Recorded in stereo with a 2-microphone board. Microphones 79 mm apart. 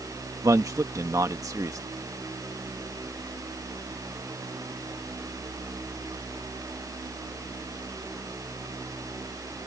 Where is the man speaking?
45° right (ahead or behind).